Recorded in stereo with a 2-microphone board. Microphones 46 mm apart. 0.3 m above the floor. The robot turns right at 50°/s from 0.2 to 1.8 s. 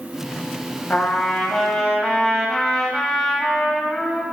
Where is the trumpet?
135° left, 2 m; by 4.2 s straight behind, 2 m.